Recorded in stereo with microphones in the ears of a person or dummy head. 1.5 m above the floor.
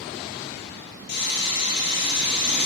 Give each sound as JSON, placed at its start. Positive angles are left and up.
{"t": 1.1, "sound": "sawing", "side_deg": 60, "distance_m": 8.5}